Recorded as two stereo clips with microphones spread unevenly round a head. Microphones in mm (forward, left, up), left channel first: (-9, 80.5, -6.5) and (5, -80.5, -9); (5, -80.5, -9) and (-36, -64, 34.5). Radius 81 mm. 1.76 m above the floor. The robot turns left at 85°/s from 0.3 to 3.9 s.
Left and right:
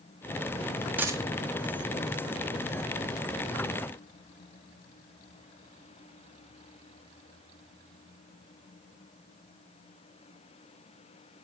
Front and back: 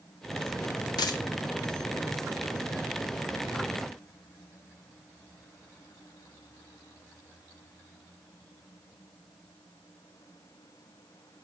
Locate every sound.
1.0 s a dropped coin: 5° right, 1.7 m; by 1.2 s 25° right, 1.7 m